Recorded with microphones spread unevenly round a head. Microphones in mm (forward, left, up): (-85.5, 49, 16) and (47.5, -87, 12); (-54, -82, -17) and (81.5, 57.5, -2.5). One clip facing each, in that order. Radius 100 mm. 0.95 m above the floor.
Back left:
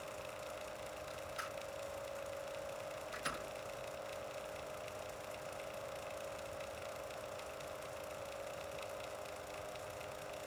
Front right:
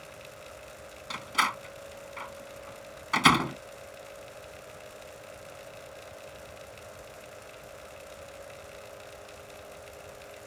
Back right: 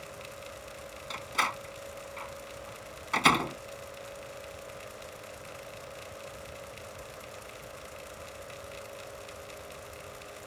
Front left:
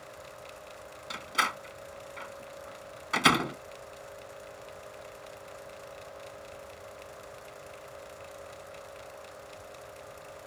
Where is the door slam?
35° right.